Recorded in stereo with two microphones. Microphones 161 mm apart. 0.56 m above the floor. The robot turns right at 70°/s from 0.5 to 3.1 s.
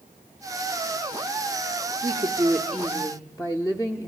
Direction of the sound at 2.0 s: 50° right.